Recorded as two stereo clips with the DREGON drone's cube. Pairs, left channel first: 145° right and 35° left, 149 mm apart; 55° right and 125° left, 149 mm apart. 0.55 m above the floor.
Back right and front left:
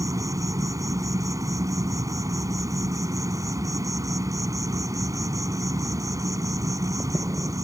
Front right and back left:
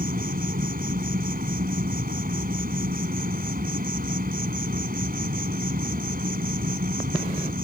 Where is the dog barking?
No dog barking in this recording.